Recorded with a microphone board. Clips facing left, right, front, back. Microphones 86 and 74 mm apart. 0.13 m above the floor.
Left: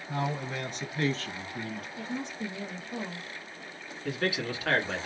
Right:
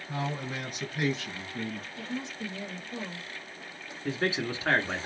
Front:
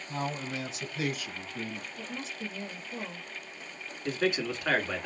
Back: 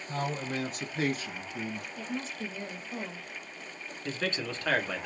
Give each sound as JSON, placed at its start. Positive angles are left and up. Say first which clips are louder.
{"t": 0.1, "sound": "a man speaking", "louder": "left 2 dB, back 1 dB", "azimuth_deg": 180, "distance_m": 1.9}
{"t": 2.0, "sound": "a woman speaking", "louder": "left 2 dB, back 4 dB", "azimuth_deg": 150, "distance_m": 1.5}
{"t": 4.0, "sound": "a man speaking", "louder": "right 1 dB, front 5 dB", "azimuth_deg": -75, "distance_m": 1.3}